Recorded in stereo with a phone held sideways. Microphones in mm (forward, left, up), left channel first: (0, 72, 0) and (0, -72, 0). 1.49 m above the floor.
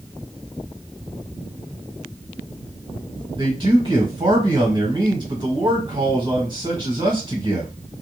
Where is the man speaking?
35° right (ahead or behind), 1.5 m.